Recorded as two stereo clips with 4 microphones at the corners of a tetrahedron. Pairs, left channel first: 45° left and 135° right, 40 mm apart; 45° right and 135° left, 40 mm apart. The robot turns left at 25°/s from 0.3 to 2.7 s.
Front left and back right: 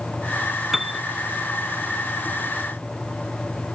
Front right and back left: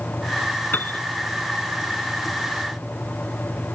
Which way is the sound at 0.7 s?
50° right.